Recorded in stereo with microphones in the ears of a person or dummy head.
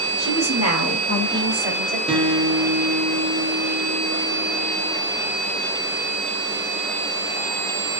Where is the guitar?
Centre (ahead or behind), 1.1 m.